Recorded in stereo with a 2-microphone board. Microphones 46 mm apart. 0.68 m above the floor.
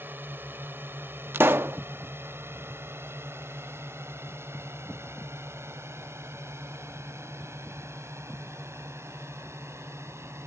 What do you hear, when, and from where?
0.0 s a drone: 45° right (ahead or behind); by 10.5 s 75° right (ahead or behind)
1.3 s a pop: 55° right (ahead or behind)